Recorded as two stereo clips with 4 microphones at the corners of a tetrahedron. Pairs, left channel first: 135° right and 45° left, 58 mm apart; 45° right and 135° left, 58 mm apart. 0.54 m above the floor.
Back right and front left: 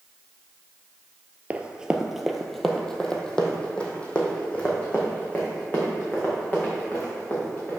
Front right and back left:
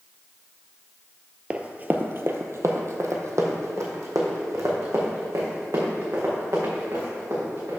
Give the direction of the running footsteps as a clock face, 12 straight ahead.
9 o'clock.